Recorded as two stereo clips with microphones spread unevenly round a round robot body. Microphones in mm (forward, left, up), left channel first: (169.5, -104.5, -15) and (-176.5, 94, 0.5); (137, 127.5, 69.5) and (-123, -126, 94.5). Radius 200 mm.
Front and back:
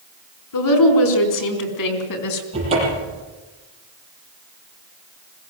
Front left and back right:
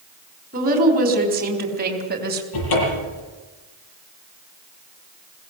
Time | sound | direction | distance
0.5 | a woman speaking | 70° right | 4.5 m
2.5 | a cupboard door | 75° left | 8 m